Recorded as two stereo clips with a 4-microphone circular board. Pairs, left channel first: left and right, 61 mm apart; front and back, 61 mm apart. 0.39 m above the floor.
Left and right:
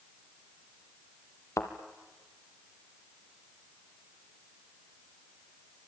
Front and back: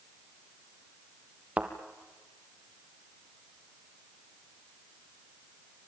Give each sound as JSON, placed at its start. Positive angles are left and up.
{"t": 1.6, "sound": "a thud", "azimuth_deg": 115, "distance_m": 2.0}